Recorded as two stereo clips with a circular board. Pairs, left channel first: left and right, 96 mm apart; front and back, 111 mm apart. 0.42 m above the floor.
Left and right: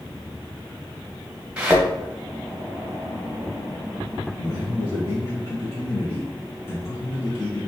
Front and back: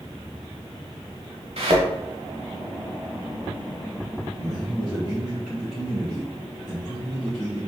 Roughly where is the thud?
Behind.